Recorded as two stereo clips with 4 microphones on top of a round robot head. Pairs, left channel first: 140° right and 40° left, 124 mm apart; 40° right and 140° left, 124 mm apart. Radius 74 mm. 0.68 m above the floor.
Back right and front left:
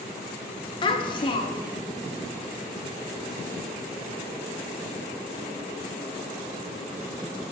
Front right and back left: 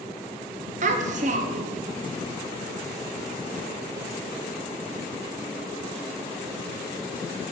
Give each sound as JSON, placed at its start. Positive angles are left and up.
{"t": 0.8, "sound": "a child speaking", "azimuth_deg": 165, "distance_m": 0.6}